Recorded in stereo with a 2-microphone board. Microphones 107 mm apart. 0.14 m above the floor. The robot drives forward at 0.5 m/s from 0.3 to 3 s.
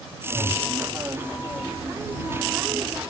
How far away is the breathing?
About 3 m.